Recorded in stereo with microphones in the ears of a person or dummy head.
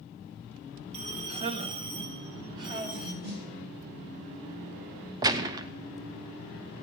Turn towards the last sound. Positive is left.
turn(degrees=-20)  # may be behind; listen again after turning